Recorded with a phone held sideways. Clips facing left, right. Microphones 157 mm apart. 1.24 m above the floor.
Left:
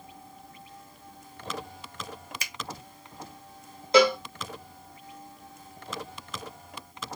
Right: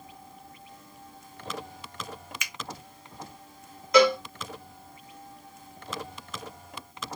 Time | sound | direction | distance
2.4 | a finger snap | 35° left (ahead or behind) | 0.5 m
3.9 | a cowbell | 30° left (ahead or behind) | 1.6 m